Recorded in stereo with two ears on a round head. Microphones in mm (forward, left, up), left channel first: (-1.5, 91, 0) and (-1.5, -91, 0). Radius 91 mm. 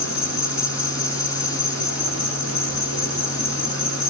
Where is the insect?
80° left, 8 m.